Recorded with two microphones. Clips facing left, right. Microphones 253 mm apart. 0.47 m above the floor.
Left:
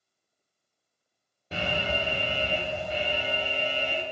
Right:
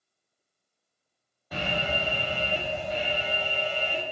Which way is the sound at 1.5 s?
25° left (ahead or behind).